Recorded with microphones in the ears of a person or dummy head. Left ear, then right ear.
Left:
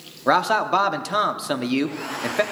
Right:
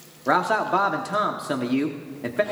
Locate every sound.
0.3 s a man speaking: 20° left (ahead or behind), 0.9 m